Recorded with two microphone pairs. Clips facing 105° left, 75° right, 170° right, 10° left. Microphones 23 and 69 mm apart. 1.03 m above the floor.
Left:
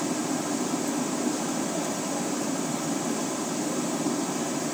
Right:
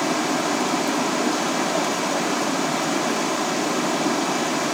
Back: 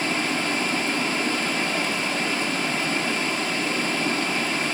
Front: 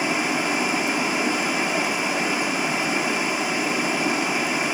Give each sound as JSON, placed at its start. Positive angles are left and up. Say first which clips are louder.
{"t": 0.0, "sound": "running water", "louder": "right 7 dB, front 2 dB", "azimuth_deg": -65, "distance_m": 0.8}